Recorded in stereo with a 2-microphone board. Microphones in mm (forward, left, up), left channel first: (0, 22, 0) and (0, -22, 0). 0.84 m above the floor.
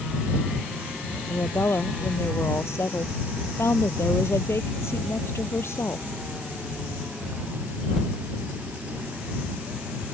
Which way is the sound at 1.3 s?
90° left.